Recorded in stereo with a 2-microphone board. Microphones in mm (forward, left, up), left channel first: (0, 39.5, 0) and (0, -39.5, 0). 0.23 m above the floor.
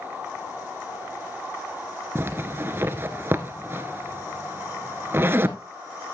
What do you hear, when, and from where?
2.1 s a zipper: 30° right (ahead or behind), 0.9 m